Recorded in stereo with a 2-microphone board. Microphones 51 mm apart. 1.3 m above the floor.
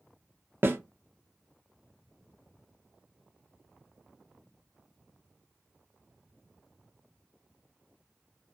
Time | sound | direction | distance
0.6 | a snare drum | 45° right (ahead or behind) | 0.5 m